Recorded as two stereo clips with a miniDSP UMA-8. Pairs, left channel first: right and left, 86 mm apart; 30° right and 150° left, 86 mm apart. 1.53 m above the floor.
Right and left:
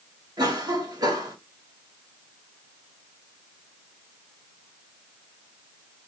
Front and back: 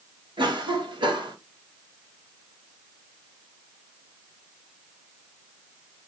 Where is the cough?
130° left, 1.7 m.